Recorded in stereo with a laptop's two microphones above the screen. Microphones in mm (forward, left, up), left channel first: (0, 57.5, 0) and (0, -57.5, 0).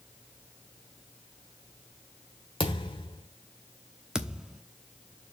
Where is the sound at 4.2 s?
5° right (ahead or behind), 0.9 m.